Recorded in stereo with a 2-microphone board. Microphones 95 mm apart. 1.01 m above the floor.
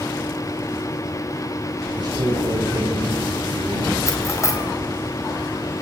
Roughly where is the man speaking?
Right.